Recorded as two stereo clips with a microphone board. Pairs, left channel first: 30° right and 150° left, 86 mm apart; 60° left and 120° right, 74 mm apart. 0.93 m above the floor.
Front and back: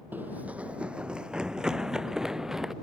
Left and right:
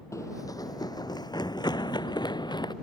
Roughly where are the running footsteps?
Left.